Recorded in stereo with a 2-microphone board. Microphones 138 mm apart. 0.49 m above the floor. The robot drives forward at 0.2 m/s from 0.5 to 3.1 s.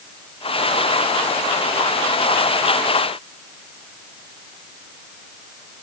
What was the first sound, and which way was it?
Only background noise.